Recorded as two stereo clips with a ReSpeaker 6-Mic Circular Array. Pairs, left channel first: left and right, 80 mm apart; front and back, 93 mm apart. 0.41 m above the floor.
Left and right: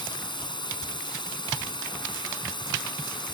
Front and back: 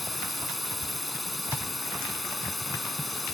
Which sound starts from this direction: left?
A drone, at 0.0 s.